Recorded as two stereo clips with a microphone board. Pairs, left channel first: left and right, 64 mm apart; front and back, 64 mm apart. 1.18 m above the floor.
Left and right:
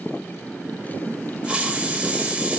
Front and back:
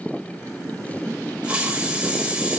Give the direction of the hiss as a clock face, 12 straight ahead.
5 o'clock.